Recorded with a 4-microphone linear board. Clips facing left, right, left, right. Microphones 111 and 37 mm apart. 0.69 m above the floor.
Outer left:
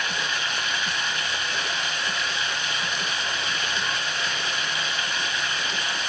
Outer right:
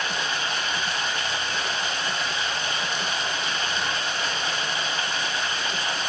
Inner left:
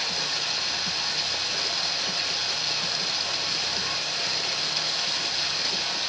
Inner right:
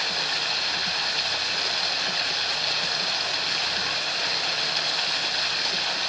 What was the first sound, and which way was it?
Running water, 35° right (ahead or behind).